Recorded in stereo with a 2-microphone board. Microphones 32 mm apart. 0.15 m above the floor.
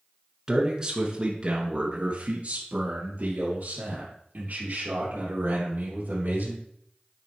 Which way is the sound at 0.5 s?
15° right (ahead or behind).